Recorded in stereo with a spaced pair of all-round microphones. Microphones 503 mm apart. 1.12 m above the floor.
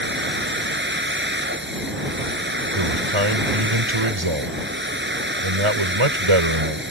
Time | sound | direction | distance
0.0 | a machine running | 20° right (ahead or behind) | ?
2.8 | a man speaking | 70° right (ahead or behind) | ?